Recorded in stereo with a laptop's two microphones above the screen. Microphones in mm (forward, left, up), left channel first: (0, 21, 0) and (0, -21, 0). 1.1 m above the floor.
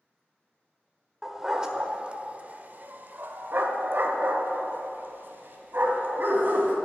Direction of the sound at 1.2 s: 10° right (ahead or behind).